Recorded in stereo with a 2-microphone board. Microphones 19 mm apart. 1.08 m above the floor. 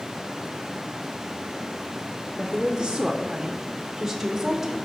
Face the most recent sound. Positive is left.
turn(degrees=-10)  # may be behind; listen again after turning